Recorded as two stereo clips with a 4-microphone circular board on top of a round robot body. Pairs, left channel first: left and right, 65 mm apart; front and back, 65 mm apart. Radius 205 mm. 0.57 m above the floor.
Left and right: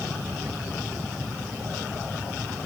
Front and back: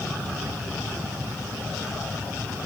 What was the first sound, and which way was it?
Only background noise.